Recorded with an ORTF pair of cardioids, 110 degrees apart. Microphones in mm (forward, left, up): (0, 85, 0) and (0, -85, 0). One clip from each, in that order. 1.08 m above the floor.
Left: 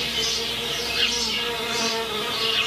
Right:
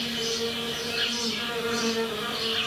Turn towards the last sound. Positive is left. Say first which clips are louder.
# left 4 dB
turn(degrees=50)